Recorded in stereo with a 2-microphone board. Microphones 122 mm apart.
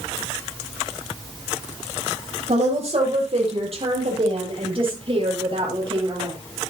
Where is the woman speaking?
55° right (ahead or behind), 9 m; by 6.3 s 40° right (ahead or behind), 7.5 m.